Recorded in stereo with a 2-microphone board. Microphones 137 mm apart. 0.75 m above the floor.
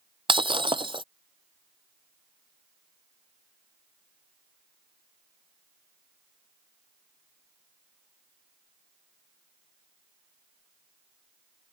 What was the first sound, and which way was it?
Breaking glass, 40° right (ahead or behind).